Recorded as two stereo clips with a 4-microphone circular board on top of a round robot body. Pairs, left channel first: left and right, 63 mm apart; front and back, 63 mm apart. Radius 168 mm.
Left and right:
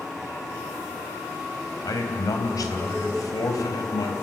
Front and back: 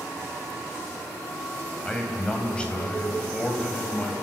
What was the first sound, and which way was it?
A man speaking, 75° left.